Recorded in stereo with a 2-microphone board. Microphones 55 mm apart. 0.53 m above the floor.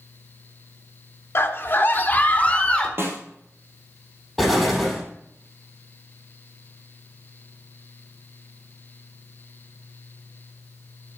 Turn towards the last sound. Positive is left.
turn(degrees=0)  # may be behind; listen again after turning